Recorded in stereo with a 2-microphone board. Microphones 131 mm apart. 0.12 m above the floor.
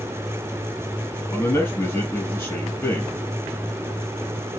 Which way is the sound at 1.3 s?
15° left (ahead or behind).